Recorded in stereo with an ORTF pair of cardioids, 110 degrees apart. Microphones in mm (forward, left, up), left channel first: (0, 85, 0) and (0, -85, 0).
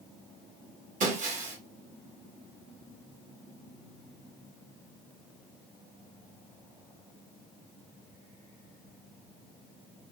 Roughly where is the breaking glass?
Ahead right.